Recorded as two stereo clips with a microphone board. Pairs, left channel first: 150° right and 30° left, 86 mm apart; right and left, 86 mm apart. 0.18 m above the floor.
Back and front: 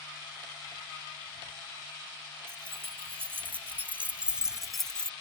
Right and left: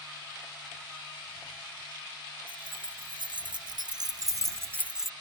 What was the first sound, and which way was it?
Keys jangling, 90° left.